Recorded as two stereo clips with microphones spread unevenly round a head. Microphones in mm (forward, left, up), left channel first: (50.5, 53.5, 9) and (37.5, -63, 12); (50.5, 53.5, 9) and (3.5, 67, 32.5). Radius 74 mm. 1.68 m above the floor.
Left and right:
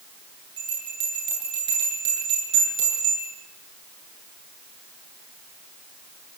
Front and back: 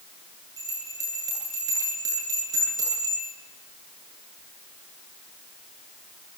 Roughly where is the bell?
Behind.